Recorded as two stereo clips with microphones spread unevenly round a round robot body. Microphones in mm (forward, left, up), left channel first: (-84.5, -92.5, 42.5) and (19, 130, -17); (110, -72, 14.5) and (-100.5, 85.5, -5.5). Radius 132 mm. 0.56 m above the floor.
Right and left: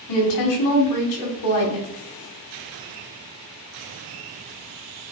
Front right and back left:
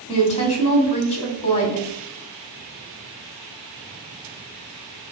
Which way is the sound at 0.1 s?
105° right.